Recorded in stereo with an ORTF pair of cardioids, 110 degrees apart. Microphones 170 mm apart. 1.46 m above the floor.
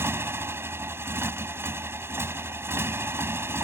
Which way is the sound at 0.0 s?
15° right.